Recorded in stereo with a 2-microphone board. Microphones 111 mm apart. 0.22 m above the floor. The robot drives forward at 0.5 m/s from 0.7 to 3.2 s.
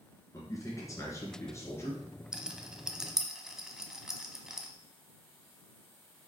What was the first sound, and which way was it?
A man speaking, 30° left (ahead or behind).